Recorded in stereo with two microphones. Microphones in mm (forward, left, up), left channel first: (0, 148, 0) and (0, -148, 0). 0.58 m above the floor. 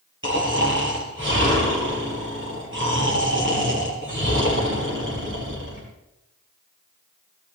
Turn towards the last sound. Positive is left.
turn(degrees=-40)  # may be behind; listen again after turning